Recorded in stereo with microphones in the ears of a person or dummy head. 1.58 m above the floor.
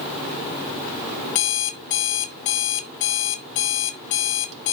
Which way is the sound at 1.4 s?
35° left (ahead or behind).